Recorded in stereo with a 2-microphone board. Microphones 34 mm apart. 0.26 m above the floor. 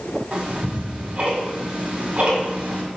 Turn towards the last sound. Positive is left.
turn(degrees=-40)  # may be behind; listen again after turning